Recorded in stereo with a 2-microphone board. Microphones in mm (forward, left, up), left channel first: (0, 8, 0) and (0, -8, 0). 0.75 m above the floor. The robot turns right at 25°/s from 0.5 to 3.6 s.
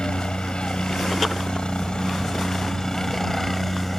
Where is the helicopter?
85° left; by 4.0 s 165° left.